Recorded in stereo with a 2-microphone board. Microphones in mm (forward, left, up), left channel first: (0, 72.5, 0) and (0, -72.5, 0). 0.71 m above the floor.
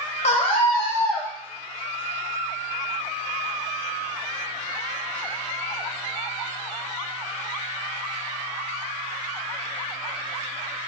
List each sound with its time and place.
0.2 s a scream: 50° left (ahead or behind), 0.9 m; by 1.3 s centre (ahead or behind), 0.9 m